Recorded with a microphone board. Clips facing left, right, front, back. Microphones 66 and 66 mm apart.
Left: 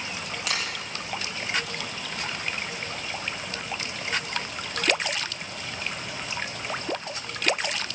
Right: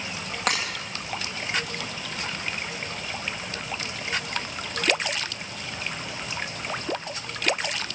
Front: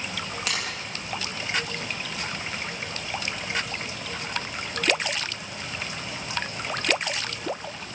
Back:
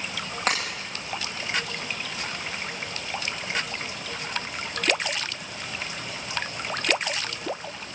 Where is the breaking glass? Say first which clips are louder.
Right 6 dB, back 6 dB; 130° right, 9 m.